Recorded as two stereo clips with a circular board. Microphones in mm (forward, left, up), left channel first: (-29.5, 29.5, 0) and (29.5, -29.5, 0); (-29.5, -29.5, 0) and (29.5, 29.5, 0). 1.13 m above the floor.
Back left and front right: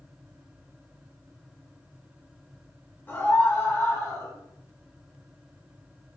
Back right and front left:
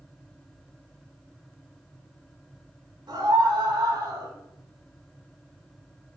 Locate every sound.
3.1 s a scream: 70° left, 5 m; by 4.3 s 85° left, 5 m